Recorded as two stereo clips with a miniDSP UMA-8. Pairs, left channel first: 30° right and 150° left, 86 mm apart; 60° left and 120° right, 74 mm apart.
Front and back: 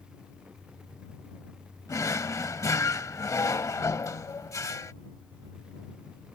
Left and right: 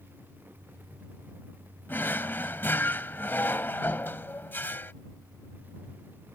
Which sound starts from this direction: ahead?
A drawer, at 1.9 s.